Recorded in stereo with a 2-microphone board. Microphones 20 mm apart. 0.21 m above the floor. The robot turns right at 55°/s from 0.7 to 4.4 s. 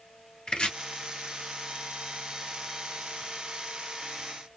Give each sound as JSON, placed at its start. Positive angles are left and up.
{"t": 0.5, "sound": "chopping", "side_deg": 45, "distance_m": 1.3}